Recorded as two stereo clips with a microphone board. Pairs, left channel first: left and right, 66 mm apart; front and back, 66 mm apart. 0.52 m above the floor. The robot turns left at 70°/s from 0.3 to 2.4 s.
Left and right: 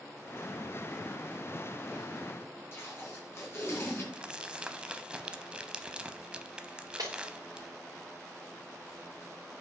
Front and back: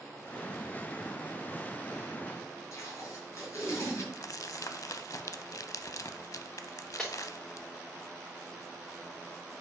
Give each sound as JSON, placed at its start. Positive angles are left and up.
{"t": 2.7, "sound": "tape being pulled", "azimuth_deg": 40, "distance_m": 3.5}
{"t": 4.1, "sound": "crumpling", "azimuth_deg": -15, "distance_m": 0.5}
{"t": 7.0, "sound": "breaking glass", "azimuth_deg": -80, "distance_m": 3.5}